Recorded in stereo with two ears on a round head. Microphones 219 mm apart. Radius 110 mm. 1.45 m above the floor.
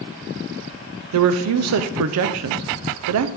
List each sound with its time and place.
1.1 s a woman speaking: 70° right (ahead or behind), 0.6 m